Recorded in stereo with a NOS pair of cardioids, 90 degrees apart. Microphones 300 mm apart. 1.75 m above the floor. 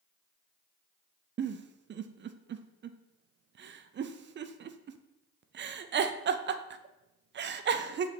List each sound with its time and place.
1.4 s a giggle: 40° right, 0.5 m